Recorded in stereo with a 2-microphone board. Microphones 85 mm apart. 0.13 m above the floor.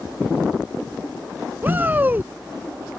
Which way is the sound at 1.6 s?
25° right (ahead or behind).